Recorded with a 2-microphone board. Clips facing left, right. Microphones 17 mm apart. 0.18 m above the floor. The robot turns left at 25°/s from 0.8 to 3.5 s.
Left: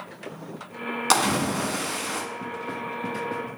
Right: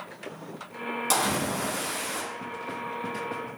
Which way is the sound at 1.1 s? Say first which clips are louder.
Left 5 dB; 50° left (ahead or behind).